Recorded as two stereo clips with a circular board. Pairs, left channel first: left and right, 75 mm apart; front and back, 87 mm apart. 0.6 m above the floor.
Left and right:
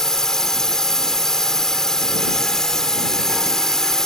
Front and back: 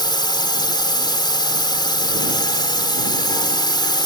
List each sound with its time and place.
0.0 s a drone: 10° left